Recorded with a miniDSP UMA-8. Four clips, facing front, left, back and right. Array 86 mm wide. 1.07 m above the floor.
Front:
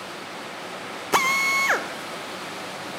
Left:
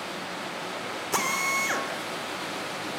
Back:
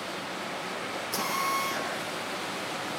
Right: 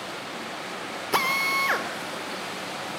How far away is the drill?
About 2.5 m.